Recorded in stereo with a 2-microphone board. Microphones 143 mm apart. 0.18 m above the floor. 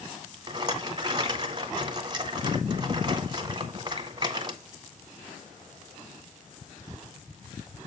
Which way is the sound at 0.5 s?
30° right (ahead or behind).